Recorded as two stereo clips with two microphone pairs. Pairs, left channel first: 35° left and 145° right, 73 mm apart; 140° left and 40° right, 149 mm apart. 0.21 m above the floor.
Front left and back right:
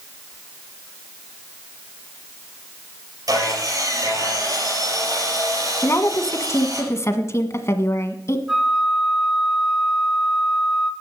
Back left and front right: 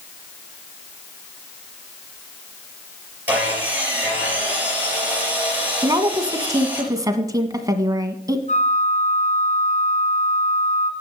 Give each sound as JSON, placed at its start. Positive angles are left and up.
{"t": 3.3, "sound": "sawing", "azimuth_deg": -120, "distance_m": 4.5}
{"t": 5.8, "sound": "a woman speaking", "azimuth_deg": 15, "distance_m": 1.3}
{"t": 8.5, "sound": "a flute", "azimuth_deg": 130, "distance_m": 2.5}